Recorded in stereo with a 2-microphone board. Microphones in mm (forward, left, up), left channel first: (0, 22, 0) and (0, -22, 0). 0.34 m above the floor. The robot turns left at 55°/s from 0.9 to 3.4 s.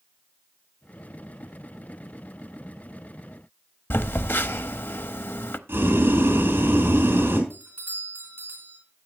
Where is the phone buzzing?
60° left (ahead or behind), 0.6 m.